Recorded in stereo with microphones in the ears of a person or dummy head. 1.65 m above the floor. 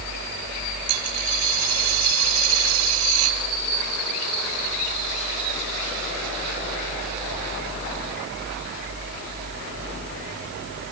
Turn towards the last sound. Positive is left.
turn(degrees=-80)